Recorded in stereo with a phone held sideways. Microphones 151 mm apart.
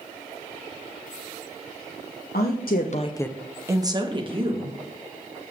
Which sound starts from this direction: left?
A woman speaking, at 2.3 s.